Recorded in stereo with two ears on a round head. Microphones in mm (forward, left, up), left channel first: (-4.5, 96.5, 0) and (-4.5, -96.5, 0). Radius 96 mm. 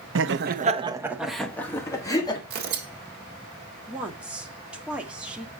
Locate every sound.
0.1 s laughter: 65° right (ahead or behind), 0.8 m; by 2.4 s 20° left (ahead or behind), 2.0 m
2.5 s tearing paper: 45° right (ahead or behind), 1.7 m
3.9 s a woman speaking: 5° right (ahead or behind), 1.6 m